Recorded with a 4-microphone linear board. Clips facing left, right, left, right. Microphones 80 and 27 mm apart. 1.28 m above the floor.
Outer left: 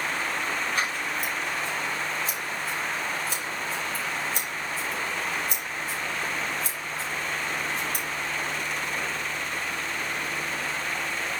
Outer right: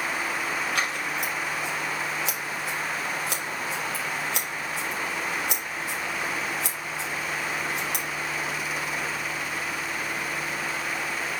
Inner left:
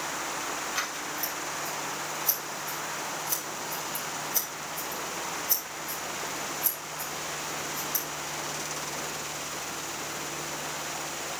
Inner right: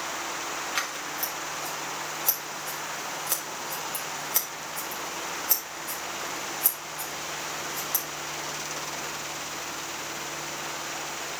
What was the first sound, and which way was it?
Scissors, 85° right.